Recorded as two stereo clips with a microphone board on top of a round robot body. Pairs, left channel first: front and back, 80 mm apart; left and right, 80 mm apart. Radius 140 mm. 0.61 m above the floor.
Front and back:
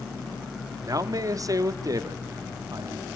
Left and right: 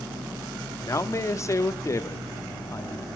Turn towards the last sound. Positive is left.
turn(degrees=140)